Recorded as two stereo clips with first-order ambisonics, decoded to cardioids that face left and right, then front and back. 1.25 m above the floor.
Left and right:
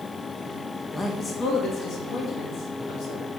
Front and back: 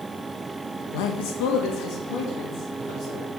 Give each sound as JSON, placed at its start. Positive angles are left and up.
{"t": 0.9, "sound": "a man speaking", "azimuth_deg": 10, "distance_m": 1.0}